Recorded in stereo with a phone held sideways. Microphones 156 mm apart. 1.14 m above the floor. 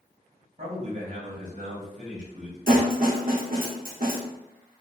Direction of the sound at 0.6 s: 55° right (ahead or behind).